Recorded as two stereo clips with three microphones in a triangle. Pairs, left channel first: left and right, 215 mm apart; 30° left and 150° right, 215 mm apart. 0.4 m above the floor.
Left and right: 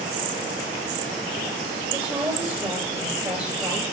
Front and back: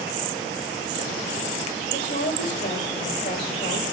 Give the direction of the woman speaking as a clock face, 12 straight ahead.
12 o'clock.